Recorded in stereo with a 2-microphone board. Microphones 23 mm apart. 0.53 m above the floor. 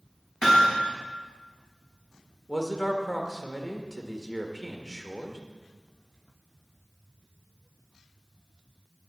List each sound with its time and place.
0.4 s hammering: 25° right (ahead or behind), 4 m
2.5 s a man speaking: centre (ahead or behind), 1.2 m